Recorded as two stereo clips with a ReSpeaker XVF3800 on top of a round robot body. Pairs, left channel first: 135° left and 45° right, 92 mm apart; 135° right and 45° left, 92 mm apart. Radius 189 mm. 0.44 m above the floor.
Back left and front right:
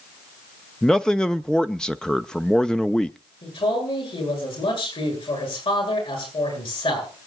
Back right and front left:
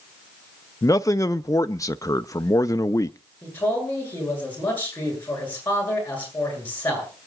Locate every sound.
0.8 s a man speaking: 145° right, 0.8 m
3.4 s a man speaking: 155° left, 9.5 m